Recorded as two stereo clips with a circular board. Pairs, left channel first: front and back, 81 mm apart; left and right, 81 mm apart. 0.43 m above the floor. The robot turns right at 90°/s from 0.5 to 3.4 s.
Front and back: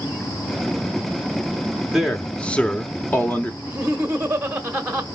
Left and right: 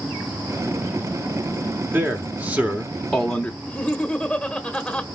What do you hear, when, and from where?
1.9 s a man speaking: 105° right, 1.2 m; by 3.5 s 30° left, 1.2 m
3.6 s laughter: 150° left, 1.0 m